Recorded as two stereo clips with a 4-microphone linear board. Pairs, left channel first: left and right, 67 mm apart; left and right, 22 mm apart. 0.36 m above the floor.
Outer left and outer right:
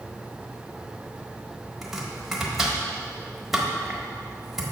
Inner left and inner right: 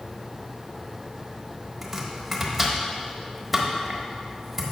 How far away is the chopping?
About 1.2 m.